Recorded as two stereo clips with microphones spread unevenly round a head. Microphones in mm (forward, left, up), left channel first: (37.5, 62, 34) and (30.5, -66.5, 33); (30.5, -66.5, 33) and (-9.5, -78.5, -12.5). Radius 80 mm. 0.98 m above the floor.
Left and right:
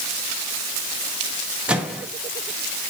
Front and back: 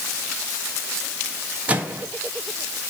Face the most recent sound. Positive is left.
turn(degrees=-175)